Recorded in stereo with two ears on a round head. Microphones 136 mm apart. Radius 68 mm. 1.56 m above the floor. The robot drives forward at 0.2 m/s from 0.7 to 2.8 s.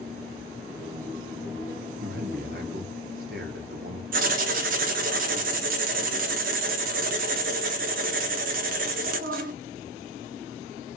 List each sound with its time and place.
2.0 s a man speaking: 70° right (ahead or behind), 0.8 m; by 4.0 s 65° right (ahead or behind), 0.9 m
4.1 s writing: 60° right (ahead or behind), 0.6 m